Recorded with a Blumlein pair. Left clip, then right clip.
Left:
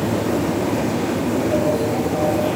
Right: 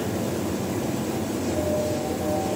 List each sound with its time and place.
0.0 s a machine running: 50° left, 1.3 m